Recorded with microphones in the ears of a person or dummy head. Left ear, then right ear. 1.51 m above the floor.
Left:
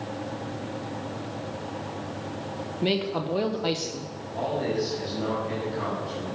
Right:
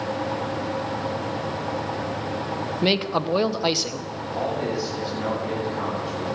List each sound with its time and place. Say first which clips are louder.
2.8 s a man speaking: right 4 dB; 30° right (ahead or behind), 0.8 m
4.3 s a man speaking: right 1 dB; 30° right (ahead or behind), 7 m